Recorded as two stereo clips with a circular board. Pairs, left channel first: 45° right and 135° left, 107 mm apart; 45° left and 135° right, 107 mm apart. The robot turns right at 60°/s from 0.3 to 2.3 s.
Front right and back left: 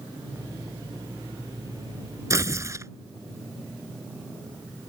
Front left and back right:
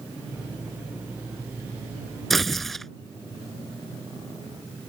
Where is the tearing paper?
130° left.